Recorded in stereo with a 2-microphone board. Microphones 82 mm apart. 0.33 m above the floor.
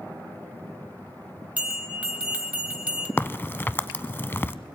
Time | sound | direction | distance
1.6 | a bell | 15° right (ahead or behind) | 1.5 m
3.2 | a crack | 25° left (ahead or behind) | 0.5 m